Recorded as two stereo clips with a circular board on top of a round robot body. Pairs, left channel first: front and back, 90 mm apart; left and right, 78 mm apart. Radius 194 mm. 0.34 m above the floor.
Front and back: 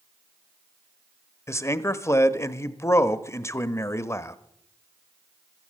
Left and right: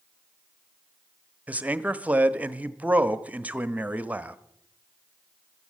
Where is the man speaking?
30° right, 1.0 m.